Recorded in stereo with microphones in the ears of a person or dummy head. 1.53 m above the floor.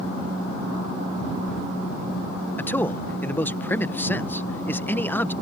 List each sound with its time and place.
2.6 s a man speaking: 10° left (ahead or behind)